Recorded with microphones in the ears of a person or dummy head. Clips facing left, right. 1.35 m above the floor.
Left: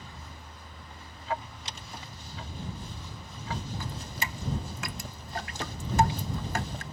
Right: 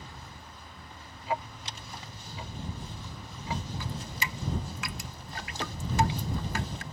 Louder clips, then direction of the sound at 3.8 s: Even; 40° left (ahead or behind).